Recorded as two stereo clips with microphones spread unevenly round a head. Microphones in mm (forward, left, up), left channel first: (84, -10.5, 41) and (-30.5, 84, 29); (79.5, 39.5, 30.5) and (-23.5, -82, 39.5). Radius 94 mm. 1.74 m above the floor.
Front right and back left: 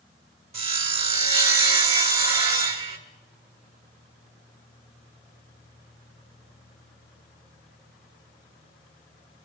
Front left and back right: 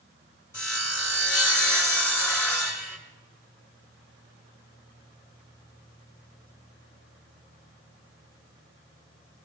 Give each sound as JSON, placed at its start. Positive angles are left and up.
{"t": 0.5, "sound": "sawing", "azimuth_deg": 120, "distance_m": 1.8}